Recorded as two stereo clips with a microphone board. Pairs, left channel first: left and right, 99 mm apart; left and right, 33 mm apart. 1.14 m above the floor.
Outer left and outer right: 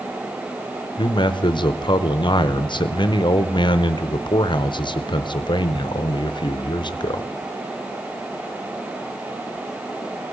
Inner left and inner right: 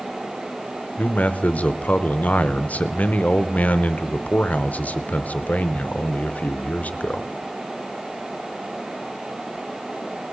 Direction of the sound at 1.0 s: 50° left (ahead or behind).